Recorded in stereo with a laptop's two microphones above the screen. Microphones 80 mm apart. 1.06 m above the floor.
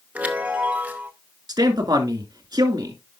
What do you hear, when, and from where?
0.1 s a chime: 20° right (ahead or behind), 0.8 m
1.5 s a man speaking: 55° right (ahead or behind), 2 m